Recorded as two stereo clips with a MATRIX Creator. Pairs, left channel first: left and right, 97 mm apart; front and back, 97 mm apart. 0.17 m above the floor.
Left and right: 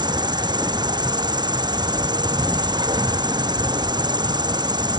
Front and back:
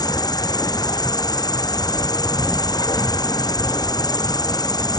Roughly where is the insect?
Ahead right.